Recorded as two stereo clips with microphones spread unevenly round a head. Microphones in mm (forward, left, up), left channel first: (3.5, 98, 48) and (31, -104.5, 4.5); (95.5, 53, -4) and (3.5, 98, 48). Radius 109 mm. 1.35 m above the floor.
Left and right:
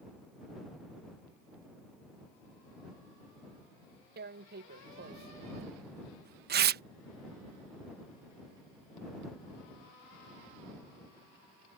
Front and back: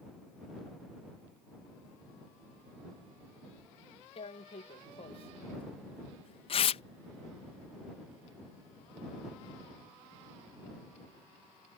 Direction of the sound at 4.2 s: 45° right.